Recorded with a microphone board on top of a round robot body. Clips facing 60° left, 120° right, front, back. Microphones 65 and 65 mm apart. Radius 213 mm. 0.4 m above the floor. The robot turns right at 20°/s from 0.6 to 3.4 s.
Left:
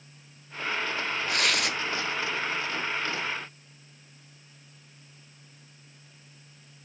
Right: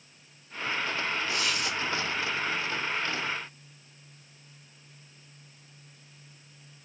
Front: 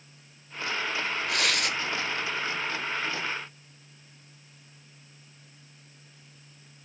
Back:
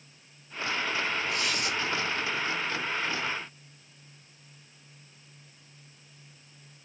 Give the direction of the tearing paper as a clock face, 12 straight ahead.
11 o'clock.